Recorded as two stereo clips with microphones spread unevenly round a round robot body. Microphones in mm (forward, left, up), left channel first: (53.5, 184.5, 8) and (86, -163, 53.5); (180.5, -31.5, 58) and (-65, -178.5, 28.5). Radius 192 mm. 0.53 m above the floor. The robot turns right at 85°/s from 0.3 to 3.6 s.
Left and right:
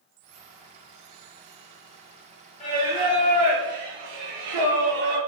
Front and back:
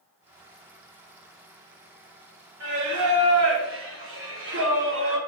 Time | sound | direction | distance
2.6 | singing | 165° left | 1.4 m